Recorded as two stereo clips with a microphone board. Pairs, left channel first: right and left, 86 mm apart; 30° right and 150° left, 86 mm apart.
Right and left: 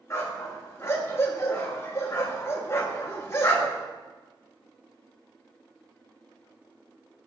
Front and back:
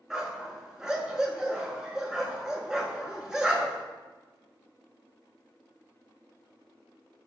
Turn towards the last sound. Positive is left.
turn(degrees=-130)